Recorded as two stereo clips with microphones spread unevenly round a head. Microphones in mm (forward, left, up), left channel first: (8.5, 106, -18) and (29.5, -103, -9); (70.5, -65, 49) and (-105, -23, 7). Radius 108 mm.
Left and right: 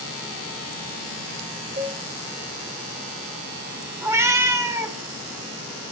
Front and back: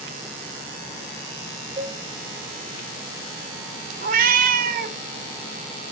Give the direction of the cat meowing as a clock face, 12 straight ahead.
5 o'clock.